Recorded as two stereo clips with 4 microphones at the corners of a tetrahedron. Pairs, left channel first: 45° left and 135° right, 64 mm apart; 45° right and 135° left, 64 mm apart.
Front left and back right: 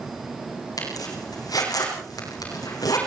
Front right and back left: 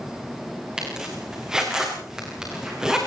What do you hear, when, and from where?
0.8 s a zipper: 55° left, 7 m